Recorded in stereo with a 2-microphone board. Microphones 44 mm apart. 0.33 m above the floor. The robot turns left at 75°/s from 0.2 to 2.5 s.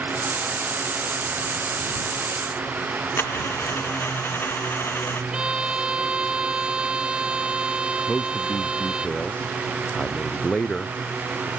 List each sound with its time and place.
3.2 s a dropped coin: 60° left (ahead or behind)
5.3 s a violin: 25° right (ahead or behind)
8.1 s a man speaking: 25° left (ahead or behind)